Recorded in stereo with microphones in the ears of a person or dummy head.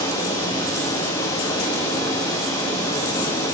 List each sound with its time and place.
0.0 s running water: 15° left (ahead or behind), 1.6 m